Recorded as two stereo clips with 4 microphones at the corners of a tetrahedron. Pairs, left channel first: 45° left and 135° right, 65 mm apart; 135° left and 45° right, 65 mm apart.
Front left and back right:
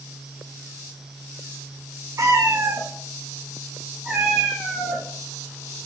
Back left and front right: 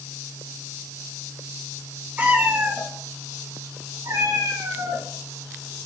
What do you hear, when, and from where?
2.2 s a cat meowing: 105° right, 2 m; by 5.0 s 35° right, 2.5 m